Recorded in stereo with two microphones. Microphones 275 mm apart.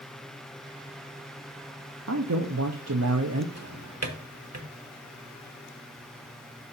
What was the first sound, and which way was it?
A man speaking, 65° right (ahead or behind).